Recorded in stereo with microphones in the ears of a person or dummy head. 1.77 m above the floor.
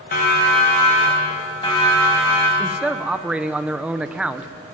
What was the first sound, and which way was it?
A siren, 45° left (ahead or behind).